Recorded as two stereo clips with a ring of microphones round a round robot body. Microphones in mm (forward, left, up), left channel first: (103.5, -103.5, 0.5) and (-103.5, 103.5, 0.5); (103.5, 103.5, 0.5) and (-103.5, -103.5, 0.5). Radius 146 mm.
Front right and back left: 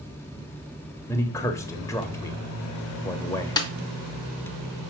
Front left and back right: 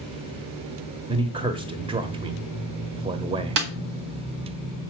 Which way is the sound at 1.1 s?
105° right.